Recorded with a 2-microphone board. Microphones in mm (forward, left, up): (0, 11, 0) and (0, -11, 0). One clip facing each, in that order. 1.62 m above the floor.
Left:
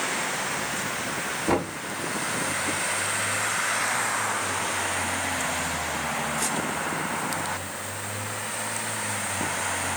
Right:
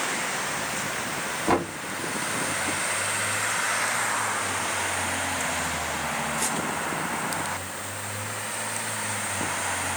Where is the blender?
No blender in this recording.